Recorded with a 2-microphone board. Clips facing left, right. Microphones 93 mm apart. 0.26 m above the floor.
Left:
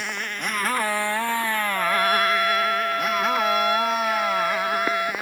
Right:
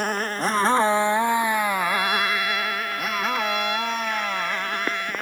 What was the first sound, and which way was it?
A motorcycle, 45° right (ahead or behind).